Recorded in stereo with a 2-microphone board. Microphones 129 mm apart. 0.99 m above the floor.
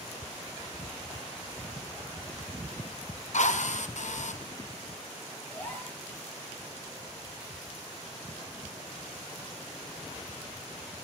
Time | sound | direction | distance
3.3 | a drill | 65° left (ahead or behind) | 1.3 m
5.5 | a gasp | 15° left (ahead or behind) | 8.5 m